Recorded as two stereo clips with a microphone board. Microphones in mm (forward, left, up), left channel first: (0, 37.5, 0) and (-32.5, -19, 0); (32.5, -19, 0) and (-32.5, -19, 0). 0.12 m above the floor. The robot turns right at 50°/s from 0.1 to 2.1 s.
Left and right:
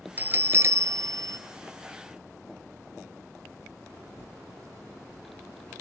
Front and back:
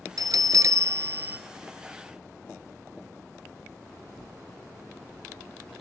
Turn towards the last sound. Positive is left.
turn(degrees=-85)